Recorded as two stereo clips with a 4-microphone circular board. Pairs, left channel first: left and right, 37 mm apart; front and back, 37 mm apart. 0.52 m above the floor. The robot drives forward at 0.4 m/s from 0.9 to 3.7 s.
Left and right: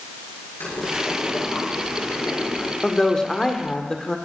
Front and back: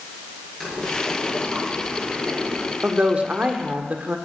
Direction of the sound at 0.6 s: 85° left.